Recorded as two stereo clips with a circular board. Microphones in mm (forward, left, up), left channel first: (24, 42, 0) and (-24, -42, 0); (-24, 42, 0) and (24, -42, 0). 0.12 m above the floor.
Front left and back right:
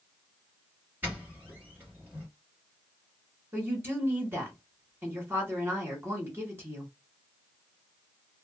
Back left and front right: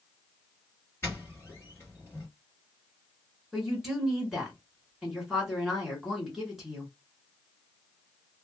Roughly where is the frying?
No frying in this recording.